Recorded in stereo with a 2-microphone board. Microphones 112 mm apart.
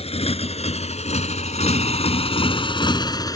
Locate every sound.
0.0 s a motorcycle: 65° left (ahead or behind); by 3.4 s 35° left (ahead or behind)